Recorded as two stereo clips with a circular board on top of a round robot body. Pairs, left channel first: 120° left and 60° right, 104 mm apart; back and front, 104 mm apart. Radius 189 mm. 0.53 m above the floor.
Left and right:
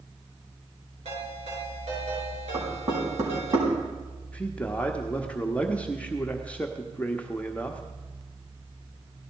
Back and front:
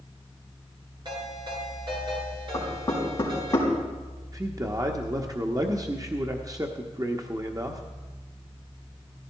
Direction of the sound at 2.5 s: 115° right.